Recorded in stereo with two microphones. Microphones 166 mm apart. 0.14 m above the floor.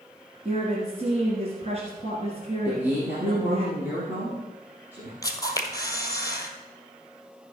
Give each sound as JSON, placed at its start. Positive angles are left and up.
{"t": 0.5, "sound": "a woman speaking", "side_deg": -40, "distance_m": 2.0}
{"t": 2.6, "sound": "a man speaking", "side_deg": -10, "distance_m": 2.5}
{"t": 5.2, "sound": "a camera shutter", "side_deg": 20, "distance_m": 1.4}